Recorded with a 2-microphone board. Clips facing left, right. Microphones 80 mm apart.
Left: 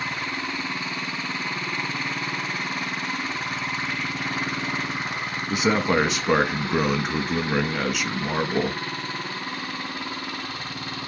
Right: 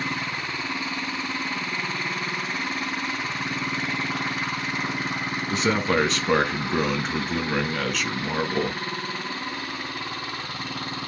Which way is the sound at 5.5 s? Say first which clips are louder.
Left 2 dB; 10° left (ahead or behind).